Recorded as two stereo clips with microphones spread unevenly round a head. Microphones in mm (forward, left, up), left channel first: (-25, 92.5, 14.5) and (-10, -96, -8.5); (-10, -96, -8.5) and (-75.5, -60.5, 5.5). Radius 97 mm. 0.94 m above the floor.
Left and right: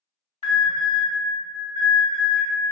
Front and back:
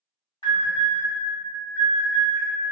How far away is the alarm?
About 1.9 m.